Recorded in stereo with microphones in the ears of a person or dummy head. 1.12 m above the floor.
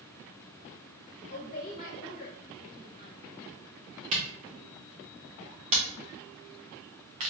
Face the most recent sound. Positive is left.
turn(degrees=-35)  # may be behind; listen again after turning